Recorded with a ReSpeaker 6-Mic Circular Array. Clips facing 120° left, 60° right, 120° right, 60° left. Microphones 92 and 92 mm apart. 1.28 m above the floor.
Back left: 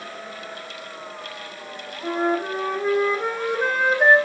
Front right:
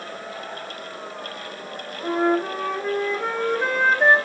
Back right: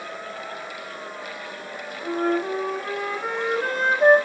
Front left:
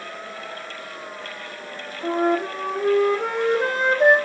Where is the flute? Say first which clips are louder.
Front right 2 dB, front left 2 dB; 40° left, 0.6 m.